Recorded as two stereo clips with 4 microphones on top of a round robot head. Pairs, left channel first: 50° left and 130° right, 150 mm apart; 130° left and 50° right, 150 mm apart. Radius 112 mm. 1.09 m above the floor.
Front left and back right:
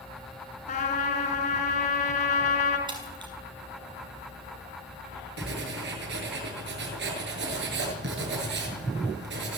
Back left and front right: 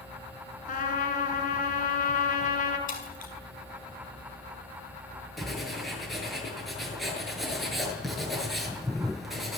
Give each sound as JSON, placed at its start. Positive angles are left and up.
{"t": 0.7, "sound": "a trumpet", "azimuth_deg": 90, "distance_m": 5.0}
{"t": 2.9, "sound": "breaking glass", "azimuth_deg": 165, "distance_m": 6.0}
{"t": 5.4, "sound": "writing", "azimuth_deg": -140, "distance_m": 7.0}